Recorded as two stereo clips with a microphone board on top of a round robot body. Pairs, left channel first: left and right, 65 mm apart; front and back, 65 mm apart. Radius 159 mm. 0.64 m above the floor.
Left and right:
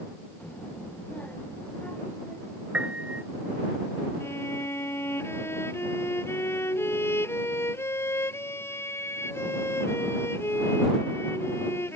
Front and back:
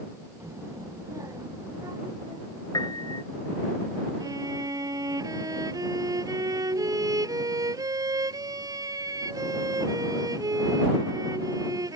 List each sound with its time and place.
0.4 s a child speaking: 150° left; by 2.6 s 155° left
2.7 s a piano: 20° right
4.2 s a violin: 145° left